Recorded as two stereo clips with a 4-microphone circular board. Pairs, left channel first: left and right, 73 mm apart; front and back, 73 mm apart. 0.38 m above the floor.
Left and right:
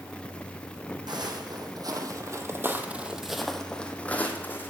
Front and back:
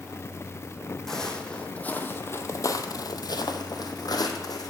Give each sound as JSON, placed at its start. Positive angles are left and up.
{"t": 1.1, "sound": "footsteps", "azimuth_deg": -85, "distance_m": 1.1}